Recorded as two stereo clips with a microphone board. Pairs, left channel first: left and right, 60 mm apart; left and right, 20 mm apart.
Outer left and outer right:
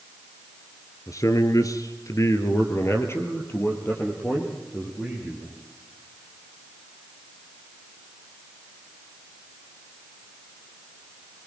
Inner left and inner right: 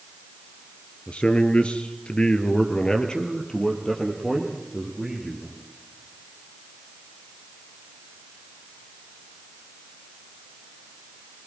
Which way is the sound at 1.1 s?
60° left (ahead or behind).